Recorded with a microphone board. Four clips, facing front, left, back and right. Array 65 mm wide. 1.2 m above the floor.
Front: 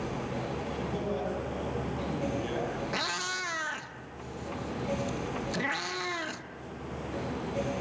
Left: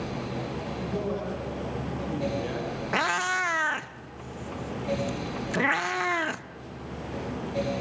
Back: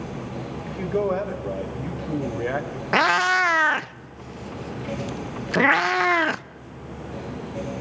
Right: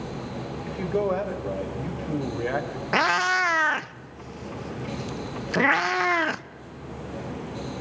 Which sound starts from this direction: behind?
A cat meowing, at 2.9 s.